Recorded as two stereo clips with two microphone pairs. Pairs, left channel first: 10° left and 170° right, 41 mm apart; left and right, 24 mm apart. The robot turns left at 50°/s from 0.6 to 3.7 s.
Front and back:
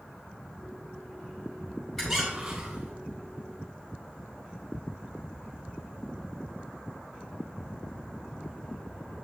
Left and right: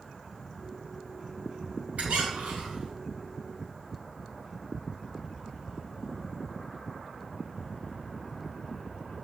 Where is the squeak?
75° right, 3 m; by 2.9 s 120° right, 3 m.